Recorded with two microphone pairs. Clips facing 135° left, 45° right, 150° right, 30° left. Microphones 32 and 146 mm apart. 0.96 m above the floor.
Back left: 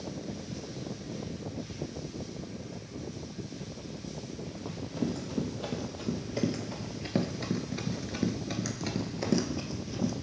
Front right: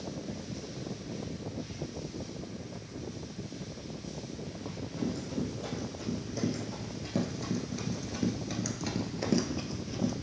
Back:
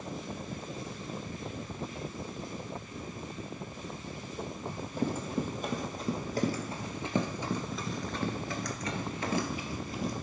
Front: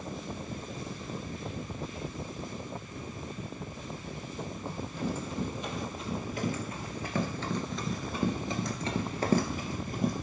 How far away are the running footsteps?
About 2 m.